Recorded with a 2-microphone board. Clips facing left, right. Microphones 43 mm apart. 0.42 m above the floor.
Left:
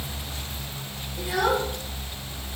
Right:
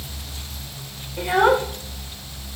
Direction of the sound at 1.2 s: 40° right (ahead or behind).